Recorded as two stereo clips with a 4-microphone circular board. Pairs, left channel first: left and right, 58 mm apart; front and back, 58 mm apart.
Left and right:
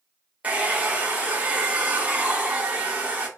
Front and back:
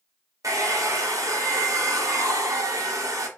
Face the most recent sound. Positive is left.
turn(degrees=-160)